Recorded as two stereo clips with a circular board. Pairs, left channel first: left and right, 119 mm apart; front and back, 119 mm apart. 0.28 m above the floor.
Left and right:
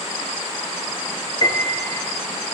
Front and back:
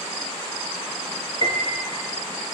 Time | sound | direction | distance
1.4 | a piano | 140° left | 4 m